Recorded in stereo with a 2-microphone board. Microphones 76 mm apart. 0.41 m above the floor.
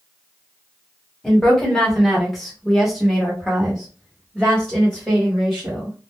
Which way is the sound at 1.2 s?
5° left (ahead or behind).